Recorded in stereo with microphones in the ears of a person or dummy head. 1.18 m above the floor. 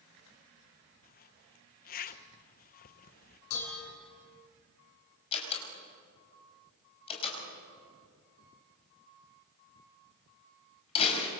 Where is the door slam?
30° left (ahead or behind), 5.5 m.